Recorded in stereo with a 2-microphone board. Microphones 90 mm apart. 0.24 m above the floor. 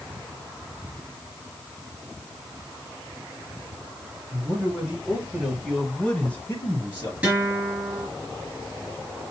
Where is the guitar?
10° right (ahead or behind), 3.5 m.